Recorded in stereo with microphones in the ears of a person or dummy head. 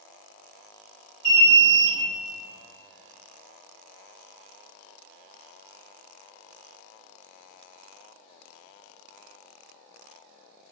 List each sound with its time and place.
1.2 s an alarm: 25° right (ahead or behind), 1.4 m